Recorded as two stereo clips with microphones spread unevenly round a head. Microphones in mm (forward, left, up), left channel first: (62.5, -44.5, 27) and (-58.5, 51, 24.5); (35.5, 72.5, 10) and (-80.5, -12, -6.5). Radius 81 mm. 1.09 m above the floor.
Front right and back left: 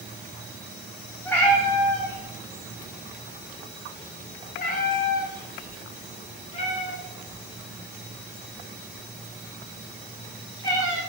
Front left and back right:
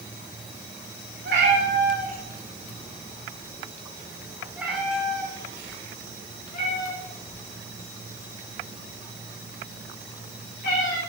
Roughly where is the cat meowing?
Behind right.